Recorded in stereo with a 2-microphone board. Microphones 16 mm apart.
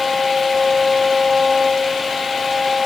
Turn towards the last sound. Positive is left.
No sound to turn to.